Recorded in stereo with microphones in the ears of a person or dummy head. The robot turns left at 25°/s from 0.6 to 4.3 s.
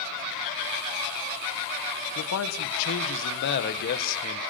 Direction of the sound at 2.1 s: 100° left.